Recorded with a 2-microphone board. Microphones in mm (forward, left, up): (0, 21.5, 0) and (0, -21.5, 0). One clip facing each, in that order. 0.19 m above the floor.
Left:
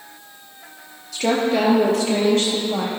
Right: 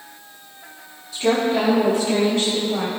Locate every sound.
1.1 s a woman speaking: 70° left (ahead or behind), 3.5 m; by 2.9 s 80° left, 5.5 m